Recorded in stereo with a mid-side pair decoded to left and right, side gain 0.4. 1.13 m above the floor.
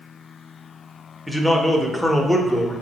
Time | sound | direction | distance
1.3 | a man speaking | 5° left | 0.8 m